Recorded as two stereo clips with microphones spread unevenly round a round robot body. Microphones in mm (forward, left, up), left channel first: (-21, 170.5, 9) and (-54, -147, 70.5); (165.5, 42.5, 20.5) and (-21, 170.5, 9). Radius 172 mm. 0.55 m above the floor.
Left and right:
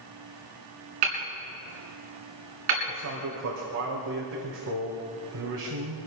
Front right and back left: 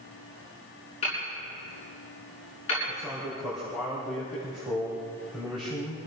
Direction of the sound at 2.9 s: 125° right.